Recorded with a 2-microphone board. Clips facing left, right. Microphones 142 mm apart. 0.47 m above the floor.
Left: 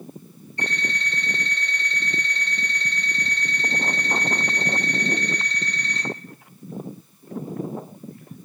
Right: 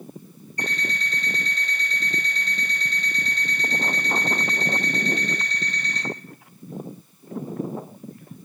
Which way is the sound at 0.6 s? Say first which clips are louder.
Left 1 dB; 40° right (ahead or behind).